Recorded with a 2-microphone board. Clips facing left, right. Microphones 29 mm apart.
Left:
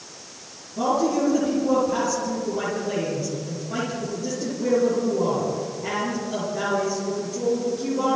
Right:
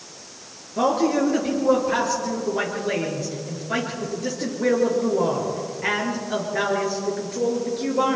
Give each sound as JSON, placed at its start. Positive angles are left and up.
{"t": 0.8, "sound": "a man speaking", "side_deg": -80, "distance_m": 7.5}